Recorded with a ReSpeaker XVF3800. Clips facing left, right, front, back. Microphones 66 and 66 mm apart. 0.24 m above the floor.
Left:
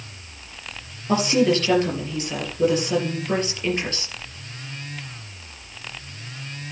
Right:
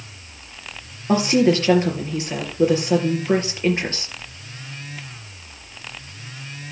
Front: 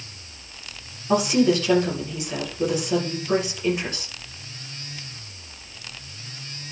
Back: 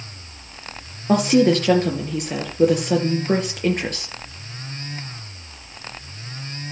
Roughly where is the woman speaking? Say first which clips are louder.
Right 2 dB, back 3 dB; behind right.